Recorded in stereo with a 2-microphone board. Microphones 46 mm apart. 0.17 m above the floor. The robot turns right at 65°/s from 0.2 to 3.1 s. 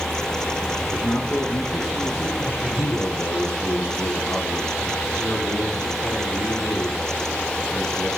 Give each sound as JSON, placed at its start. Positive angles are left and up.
{"t": 0.8, "sound": "a man speaking", "azimuth_deg": 85, "distance_m": 4.0}
{"t": 2.4, "sound": "a man speaking", "azimuth_deg": 45, "distance_m": 3.5}